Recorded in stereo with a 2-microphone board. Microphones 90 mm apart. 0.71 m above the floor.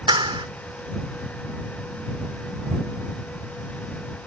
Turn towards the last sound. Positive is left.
turn(degrees=-70)  # may be behind; listen again after turning